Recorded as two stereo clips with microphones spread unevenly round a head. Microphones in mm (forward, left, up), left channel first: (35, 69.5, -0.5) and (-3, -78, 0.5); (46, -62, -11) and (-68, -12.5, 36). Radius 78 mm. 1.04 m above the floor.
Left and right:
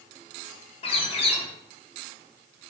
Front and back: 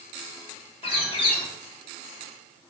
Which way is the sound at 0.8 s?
20° left.